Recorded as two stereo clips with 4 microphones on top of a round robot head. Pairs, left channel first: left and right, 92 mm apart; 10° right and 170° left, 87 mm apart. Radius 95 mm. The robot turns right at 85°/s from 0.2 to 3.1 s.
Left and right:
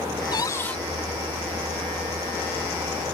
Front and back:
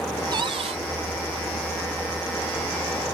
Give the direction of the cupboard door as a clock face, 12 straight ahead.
8 o'clock.